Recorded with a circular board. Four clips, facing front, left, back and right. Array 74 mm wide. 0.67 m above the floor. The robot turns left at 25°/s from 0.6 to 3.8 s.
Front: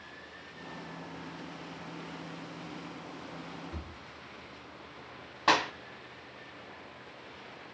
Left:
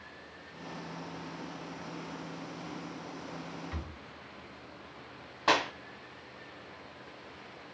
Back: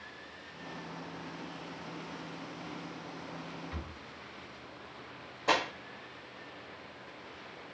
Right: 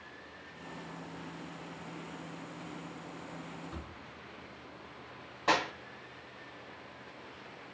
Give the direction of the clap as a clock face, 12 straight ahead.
11 o'clock.